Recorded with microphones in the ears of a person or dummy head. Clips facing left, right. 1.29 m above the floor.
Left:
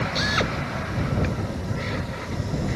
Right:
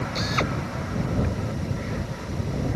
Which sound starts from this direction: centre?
A drill, at 0.1 s.